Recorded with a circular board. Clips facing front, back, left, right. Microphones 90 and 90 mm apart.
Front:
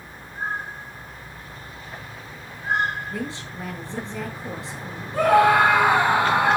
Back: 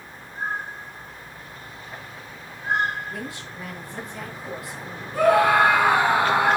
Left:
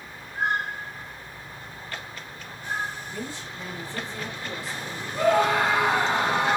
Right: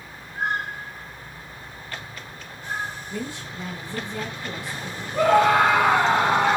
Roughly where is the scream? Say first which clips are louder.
Front 1 dB, right 4 dB; ahead right.